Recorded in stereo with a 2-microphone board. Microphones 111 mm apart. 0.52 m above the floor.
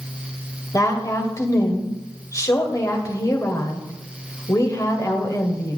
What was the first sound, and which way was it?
A woman speaking, 30° left (ahead or behind).